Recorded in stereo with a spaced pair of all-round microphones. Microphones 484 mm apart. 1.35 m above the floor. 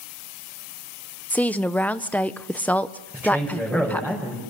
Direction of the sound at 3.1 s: 5° right (ahead or behind).